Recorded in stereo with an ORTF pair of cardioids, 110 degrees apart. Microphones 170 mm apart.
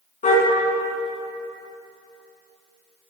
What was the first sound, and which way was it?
A car horn, 45° left.